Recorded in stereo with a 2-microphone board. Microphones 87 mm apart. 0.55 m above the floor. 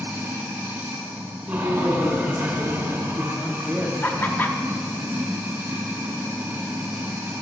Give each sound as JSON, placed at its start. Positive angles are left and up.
{"t": 0.0, "sound": "running water", "side_deg": -30, "distance_m": 1.7}
{"t": 1.5, "sound": "a woman speaking", "side_deg": -10, "distance_m": 1.2}
{"t": 4.0, "sound": "laughter", "side_deg": 20, "distance_m": 0.7}